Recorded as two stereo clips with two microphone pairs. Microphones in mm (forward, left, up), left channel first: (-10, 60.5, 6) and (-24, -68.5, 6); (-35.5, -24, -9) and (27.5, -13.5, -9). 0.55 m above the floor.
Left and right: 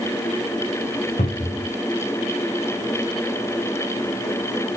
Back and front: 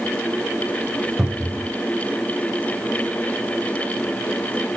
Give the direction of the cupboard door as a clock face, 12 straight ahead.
9 o'clock.